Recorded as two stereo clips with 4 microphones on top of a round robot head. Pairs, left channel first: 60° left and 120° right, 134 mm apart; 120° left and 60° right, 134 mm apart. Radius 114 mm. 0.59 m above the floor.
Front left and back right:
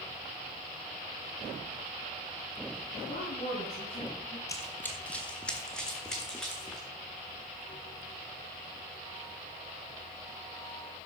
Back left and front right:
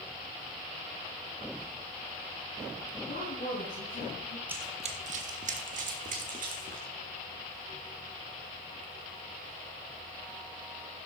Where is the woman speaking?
95° left, 6 m; by 4.4 s 110° left, 5.5 m.